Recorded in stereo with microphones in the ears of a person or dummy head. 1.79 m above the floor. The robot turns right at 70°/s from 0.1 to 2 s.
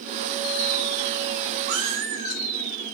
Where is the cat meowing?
30° right (ahead or behind), 1.7 m; by 2.4 s 40° right (ahead or behind), 1.7 m.